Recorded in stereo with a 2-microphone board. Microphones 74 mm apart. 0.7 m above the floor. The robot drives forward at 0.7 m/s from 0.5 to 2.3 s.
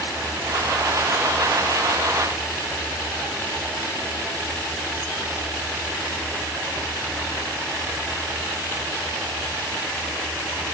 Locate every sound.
Only background noise.